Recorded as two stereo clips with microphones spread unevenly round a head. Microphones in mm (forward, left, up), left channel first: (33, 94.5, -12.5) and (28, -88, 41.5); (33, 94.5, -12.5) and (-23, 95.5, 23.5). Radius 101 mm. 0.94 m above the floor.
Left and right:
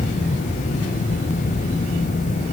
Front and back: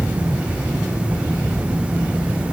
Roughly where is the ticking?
No ticking in this recording.